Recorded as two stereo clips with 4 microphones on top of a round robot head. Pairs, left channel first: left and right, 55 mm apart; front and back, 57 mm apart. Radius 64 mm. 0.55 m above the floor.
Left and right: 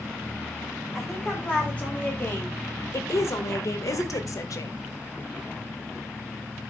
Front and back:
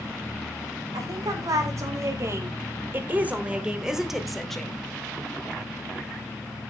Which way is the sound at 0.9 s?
165° left.